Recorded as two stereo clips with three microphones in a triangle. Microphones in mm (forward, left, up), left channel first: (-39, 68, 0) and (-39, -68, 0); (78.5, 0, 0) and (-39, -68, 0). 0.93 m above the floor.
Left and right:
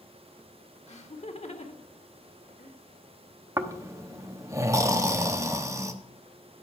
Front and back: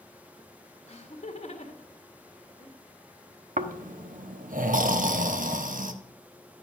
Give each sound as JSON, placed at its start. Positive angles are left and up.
{"t": 0.9, "sound": "laughter", "azimuth_deg": 65, "distance_m": 1.5}
{"t": 3.6, "sound": "snoring", "azimuth_deg": -160, "distance_m": 0.8}